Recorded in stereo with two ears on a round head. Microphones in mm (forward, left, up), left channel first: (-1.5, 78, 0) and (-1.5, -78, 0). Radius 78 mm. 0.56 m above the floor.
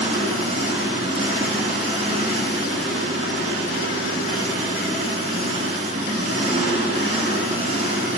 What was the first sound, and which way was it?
An engine running, 35° right (ahead or behind).